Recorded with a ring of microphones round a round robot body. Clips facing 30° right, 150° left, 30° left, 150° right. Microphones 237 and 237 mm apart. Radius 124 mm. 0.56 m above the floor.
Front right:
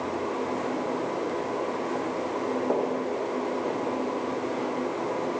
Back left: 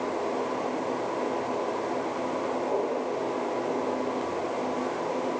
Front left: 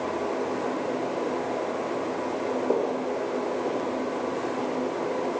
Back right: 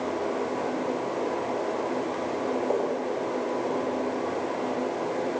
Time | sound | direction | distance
2.7 | footsteps | 25° right | 4.5 m